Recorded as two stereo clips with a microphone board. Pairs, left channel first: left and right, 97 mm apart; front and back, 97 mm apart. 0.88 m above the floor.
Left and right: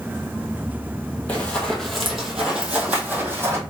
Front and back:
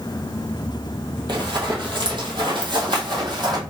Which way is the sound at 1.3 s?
160° left.